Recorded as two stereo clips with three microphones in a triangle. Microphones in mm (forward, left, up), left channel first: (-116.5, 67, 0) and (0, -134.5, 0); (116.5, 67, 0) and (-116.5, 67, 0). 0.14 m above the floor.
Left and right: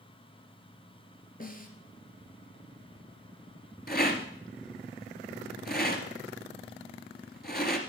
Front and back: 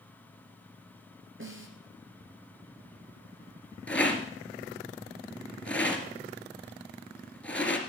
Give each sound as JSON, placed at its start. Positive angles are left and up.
{"t": 1.4, "sound": "a snare drum", "azimuth_deg": 165, "distance_m": 2.5}
{"t": 3.9, "sound": "a rattle", "azimuth_deg": 85, "distance_m": 2.0}